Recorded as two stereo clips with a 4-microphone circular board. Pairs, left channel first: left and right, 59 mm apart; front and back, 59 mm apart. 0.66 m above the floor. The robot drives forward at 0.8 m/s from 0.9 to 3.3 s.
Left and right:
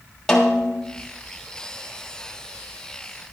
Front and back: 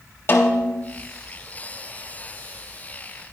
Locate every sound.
0.3 s a snare drum: 10° left, 1.5 m